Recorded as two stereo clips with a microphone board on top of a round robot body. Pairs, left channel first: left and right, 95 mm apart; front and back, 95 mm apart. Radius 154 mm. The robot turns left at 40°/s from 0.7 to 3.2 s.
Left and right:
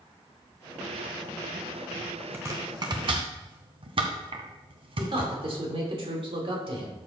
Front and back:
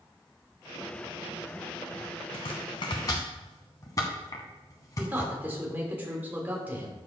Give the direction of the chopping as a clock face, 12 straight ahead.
1 o'clock.